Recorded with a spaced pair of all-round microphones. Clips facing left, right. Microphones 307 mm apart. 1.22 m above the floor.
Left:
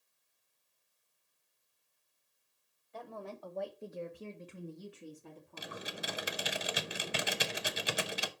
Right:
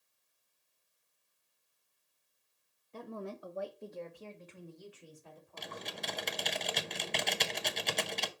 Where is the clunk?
No clunk in this recording.